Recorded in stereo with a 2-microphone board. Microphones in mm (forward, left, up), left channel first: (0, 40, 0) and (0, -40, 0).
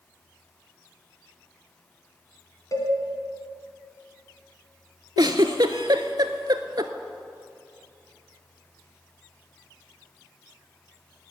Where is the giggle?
55° right (ahead or behind), 0.6 m.